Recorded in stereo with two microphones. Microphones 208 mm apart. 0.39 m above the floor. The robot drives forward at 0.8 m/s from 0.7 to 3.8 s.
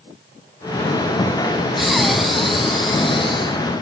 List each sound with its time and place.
1.8 s breathing: centre (ahead or behind), 0.5 m